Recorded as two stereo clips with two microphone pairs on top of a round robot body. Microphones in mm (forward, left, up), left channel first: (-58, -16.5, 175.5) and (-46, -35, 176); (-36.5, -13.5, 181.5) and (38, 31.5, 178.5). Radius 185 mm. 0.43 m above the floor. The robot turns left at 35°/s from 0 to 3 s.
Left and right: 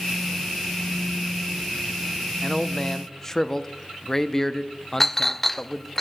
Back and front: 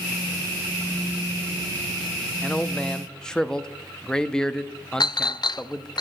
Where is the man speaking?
160° left, 0.8 m; by 6.0 s 135° left, 0.8 m.